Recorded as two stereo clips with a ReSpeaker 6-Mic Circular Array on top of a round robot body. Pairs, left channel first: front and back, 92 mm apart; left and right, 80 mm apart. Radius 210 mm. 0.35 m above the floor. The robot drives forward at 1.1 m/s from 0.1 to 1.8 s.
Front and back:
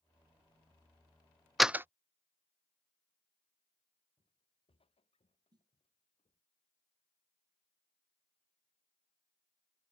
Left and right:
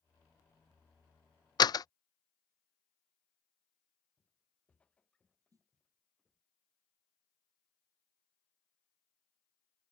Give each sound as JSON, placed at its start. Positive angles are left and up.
{"t": 1.6, "sound": "a door slam", "azimuth_deg": 90}
{"t": 4.2, "sound": "footsteps", "azimuth_deg": 20}
{"t": 5.5, "sound": "a snare drum", "azimuth_deg": -135}